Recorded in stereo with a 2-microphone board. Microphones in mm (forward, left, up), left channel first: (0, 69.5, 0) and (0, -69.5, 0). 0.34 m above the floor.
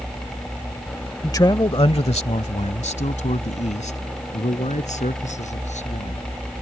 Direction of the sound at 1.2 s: 20° left (ahead or behind).